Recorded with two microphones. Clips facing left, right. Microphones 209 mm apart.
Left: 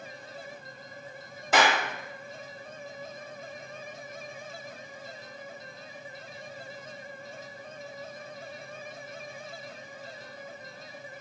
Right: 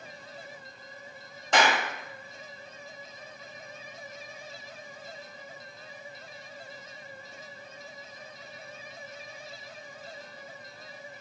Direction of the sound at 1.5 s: 5° left (ahead or behind).